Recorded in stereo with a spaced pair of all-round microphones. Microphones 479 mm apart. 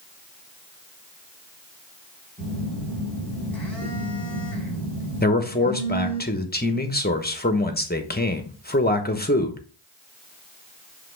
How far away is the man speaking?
About 1.1 m.